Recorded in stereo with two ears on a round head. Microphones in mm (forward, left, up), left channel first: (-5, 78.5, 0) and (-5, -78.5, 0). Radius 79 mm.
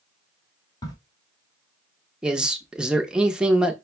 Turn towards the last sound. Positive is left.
turn(degrees=-5)  # may be behind; listen again after turning